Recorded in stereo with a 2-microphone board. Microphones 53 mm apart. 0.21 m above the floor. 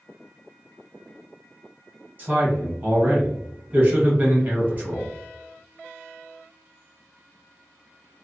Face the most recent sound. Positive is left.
turn(degrees=-30)  # may be behind; listen again after turning